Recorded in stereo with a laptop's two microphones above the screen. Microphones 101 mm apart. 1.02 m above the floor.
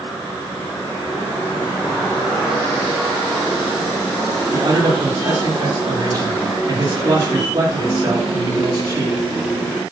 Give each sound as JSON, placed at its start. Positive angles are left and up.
{"t": 4.5, "sound": "a man speaking", "side_deg": -40, "distance_m": 2.0}